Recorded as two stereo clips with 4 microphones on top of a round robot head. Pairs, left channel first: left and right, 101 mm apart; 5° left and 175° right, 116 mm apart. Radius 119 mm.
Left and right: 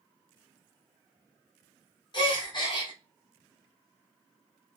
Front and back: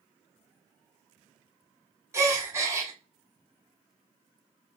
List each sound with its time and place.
2.1 s a gasp: 120° left, 1.6 m